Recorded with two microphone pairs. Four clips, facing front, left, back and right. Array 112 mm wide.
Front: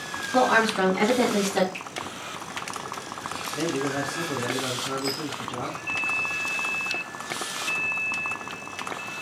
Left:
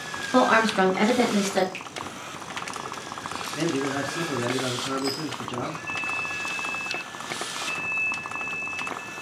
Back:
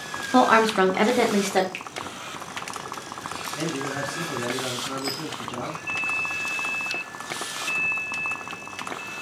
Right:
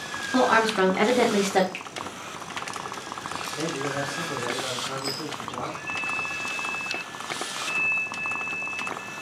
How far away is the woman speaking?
About 0.8 m.